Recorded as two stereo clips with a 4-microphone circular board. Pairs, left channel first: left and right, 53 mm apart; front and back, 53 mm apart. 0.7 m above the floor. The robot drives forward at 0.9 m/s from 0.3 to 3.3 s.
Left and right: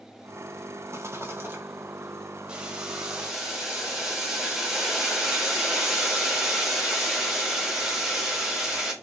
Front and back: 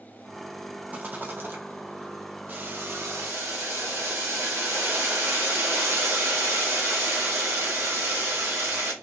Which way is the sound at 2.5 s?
150° right.